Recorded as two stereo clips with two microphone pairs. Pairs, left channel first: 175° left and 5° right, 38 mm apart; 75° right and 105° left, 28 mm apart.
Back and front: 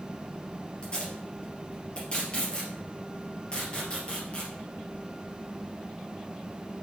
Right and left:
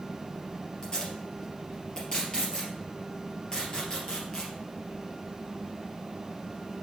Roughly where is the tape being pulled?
Behind right.